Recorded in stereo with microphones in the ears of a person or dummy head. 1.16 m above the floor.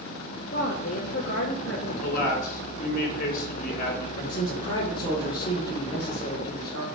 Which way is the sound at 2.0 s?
55° left (ahead or behind).